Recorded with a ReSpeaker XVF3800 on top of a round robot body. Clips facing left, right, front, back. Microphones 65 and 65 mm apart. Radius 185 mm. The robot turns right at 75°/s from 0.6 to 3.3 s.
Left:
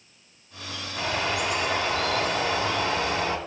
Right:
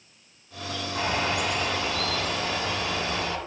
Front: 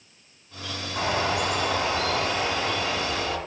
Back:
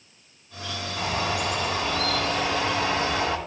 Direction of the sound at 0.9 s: 40° right.